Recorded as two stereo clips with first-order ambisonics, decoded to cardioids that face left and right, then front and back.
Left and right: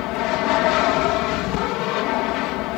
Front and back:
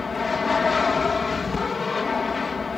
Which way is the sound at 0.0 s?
70° left.